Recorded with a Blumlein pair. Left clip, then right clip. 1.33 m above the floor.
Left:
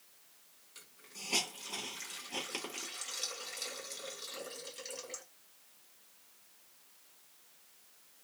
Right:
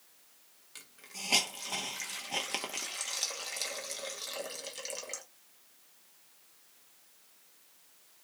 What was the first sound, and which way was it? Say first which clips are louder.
A hiss: right 5 dB; 45° right.